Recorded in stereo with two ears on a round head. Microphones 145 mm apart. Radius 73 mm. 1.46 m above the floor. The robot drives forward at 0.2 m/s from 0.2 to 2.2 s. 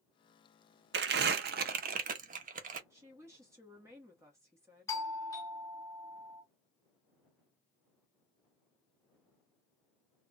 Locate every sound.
0.9 s crumpling: 75° right (ahead or behind), 0.5 m; by 2.8 s 55° right (ahead or behind), 0.6 m
2.9 s a woman speaking: 20° right (ahead or behind), 0.9 m
4.9 s a doorbell: 20° left (ahead or behind), 1.0 m